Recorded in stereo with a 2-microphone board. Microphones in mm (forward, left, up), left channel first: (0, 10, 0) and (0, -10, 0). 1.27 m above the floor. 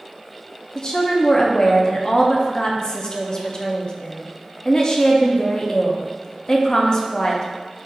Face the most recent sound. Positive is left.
turn(degrees=35)  # may be behind; listen again after turning